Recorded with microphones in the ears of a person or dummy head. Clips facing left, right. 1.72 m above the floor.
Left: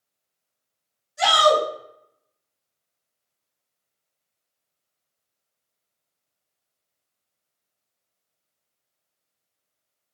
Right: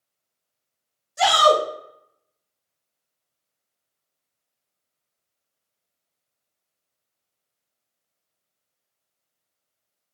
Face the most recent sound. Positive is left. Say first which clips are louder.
# right 1 dB
turn(degrees=-70)  # may be behind; listen again after turning